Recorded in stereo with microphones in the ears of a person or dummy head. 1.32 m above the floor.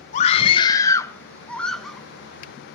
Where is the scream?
35° left (ahead or behind), 1.0 m; by 2.0 s centre (ahead or behind), 1.9 m.